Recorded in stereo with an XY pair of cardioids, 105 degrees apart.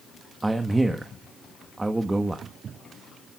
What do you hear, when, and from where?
0.4 s a man speaking: 15° right, 1.2 m